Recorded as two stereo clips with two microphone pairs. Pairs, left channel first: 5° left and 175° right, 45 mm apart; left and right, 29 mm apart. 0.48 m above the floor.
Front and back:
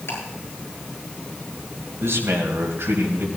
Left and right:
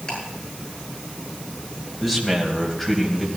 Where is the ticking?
35° left, 7.5 m.